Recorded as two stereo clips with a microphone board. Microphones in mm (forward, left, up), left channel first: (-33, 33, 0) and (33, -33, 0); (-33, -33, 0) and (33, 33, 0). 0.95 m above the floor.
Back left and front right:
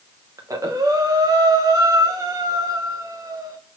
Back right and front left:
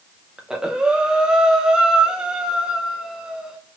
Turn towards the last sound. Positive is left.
turn(degrees=-30)